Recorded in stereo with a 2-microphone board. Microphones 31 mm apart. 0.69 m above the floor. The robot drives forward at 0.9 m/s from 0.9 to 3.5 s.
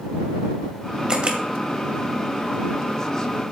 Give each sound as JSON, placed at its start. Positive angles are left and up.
{"t": 1.1, "sound": "a camera shutter", "side_deg": -30, "distance_m": 1.5}